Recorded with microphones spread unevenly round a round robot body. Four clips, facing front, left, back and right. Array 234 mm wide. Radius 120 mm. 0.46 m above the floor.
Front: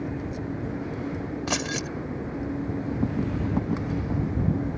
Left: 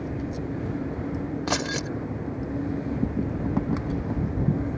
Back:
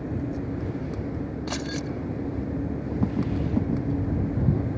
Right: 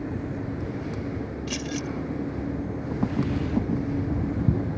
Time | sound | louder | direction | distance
1.5 | keys jangling | left 3 dB, front 2 dB | 60° left | ?